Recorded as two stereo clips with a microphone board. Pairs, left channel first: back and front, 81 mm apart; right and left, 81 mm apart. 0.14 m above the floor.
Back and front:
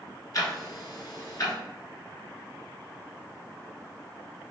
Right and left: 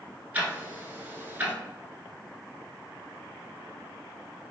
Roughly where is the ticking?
Behind left.